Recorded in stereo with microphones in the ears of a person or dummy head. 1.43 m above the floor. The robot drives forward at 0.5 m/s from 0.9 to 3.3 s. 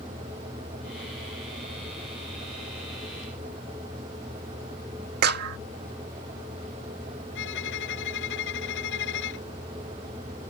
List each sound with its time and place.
5.2 s a clap: 60° right (ahead or behind)
7.3 s a violin: 70° left (ahead or behind)